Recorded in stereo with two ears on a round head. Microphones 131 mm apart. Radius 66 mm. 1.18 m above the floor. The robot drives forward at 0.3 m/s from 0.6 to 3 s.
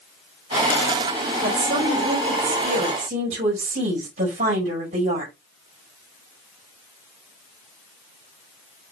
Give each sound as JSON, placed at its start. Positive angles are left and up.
{"t": 1.4, "sound": "a woman speaking", "side_deg": -60, "distance_m": 5.0}